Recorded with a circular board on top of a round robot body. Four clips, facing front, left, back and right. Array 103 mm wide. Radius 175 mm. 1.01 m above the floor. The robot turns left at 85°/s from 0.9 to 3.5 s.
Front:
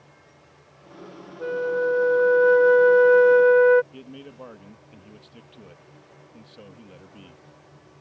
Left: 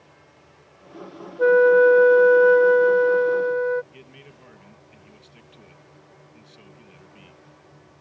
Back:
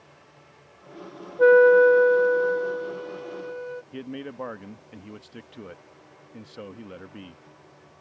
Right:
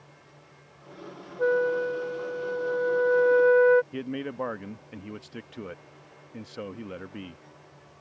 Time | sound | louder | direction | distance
1.4 | a flute | left 10 dB, back 11 dB | 160° left | ?
3.9 | a man speaking | right 15 dB, back 6 dB | 110° right | ?